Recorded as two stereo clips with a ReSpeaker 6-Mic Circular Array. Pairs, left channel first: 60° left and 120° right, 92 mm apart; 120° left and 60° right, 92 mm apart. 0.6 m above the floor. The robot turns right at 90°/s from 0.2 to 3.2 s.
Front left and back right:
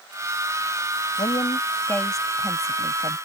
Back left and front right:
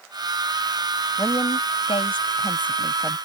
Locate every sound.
1.2 s a woman speaking: 60° left; by 3.2 s 120° right